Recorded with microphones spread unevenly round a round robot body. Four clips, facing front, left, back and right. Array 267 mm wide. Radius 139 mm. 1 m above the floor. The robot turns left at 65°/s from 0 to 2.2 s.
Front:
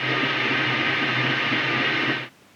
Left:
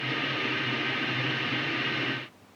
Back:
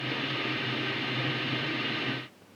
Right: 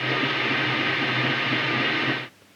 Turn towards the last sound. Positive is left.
No sound to turn to.